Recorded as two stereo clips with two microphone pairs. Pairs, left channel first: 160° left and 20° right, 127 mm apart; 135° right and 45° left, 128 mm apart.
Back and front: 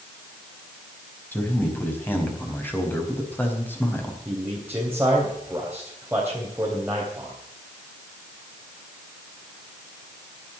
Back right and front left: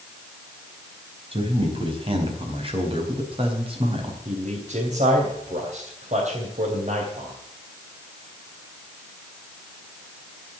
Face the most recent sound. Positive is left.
turn(degrees=55)